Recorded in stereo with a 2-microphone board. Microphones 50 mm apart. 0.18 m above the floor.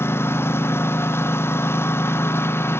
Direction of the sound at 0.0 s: 55° left (ahead or behind).